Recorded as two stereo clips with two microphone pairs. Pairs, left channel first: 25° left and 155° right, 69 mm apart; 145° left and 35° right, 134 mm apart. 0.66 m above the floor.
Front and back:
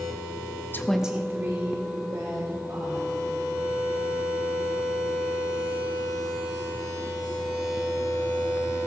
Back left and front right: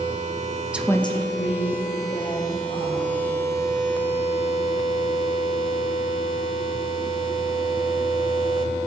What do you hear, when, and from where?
0.7 s a woman speaking: 30° left, 0.5 m; by 3.2 s 170° left, 3.5 m